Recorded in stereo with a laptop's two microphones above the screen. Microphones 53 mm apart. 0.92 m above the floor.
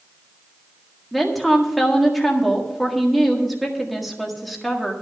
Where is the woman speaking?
Centre (ahead or behind), 1.7 m.